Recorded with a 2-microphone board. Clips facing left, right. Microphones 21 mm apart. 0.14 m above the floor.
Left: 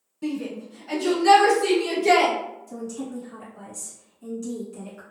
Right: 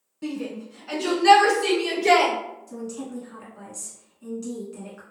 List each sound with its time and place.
0.2 s a shout: 10° right (ahead or behind), 1.1 m; by 2.3 s 50° right (ahead or behind), 1.8 m
2.7 s a woman speaking: 20° right (ahead or behind), 1.2 m